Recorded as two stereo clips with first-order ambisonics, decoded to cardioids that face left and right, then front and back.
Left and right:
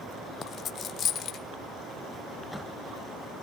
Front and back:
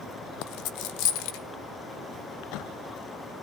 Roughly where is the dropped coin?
Ahead left.